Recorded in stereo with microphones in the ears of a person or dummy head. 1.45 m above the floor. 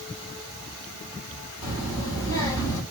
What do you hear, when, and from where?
1.6 s a child speaking: 80° left, 3.5 m